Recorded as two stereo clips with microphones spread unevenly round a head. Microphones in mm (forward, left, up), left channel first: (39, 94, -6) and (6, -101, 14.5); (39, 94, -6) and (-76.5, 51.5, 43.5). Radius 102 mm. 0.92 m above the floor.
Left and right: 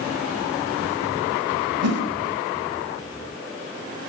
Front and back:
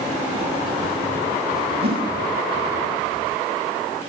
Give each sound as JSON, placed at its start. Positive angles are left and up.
{"t": 1.8, "sound": "a whoosh", "azimuth_deg": -120, "distance_m": 4.0}